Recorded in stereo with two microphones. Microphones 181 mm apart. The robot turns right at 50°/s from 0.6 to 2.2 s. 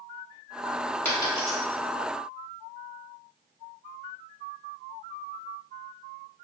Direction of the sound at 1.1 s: 10° left (ahead or behind).